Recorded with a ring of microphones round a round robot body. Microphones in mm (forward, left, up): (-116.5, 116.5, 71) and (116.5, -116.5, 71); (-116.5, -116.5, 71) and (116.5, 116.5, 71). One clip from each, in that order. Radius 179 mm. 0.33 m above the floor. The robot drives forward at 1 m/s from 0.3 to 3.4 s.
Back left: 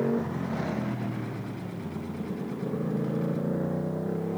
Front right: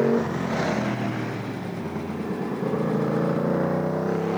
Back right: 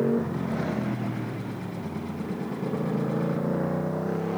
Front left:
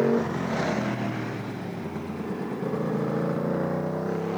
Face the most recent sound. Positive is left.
turn(degrees=-25)